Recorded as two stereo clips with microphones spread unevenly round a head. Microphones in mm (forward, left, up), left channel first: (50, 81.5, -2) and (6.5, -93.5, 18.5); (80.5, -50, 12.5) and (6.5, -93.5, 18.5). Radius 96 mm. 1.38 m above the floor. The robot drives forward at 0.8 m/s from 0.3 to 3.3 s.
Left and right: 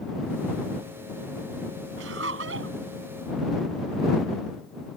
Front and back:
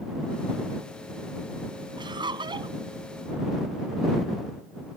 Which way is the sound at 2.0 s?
130° right.